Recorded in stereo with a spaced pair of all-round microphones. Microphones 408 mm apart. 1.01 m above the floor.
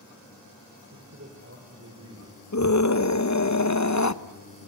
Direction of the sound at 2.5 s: 45° left (ahead or behind).